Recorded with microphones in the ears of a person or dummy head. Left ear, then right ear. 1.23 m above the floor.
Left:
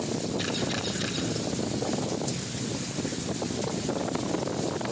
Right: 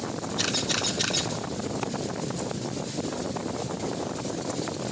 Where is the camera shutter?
80° right, 3.5 m.